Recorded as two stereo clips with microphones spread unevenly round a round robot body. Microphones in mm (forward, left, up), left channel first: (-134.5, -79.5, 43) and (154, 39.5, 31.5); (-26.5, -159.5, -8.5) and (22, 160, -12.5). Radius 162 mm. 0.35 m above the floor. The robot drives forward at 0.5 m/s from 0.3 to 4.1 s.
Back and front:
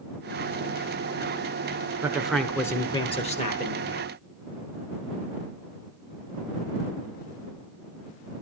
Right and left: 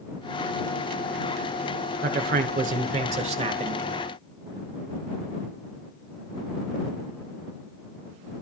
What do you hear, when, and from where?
2.0 s a man speaking: 95° left, 1.2 m; by 4.0 s 150° left, 1.6 m